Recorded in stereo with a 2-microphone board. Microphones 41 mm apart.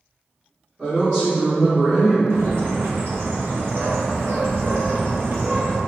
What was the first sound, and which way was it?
A woman speaking, 30° right (ahead or behind).